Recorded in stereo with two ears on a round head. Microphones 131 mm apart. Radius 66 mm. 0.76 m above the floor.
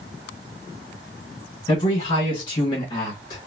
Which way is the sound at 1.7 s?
35° left (ahead or behind).